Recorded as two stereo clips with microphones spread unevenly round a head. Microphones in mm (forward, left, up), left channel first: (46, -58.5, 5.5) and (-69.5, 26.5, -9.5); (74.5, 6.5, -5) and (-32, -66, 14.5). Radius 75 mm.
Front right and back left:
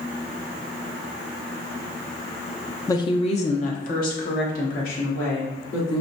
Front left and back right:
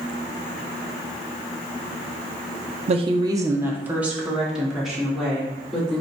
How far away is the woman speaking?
About 0.5 m.